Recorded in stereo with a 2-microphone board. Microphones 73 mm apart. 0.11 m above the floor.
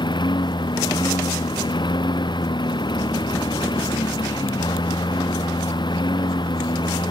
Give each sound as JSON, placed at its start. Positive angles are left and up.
{"t": 0.0, "sound": "a lawn mower", "side_deg": 75}